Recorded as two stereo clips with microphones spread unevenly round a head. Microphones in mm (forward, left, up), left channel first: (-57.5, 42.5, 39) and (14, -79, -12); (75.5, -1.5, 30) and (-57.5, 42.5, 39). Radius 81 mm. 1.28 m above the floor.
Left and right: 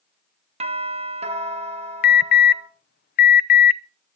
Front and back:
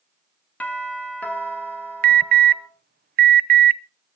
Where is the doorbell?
100° right, 3 m.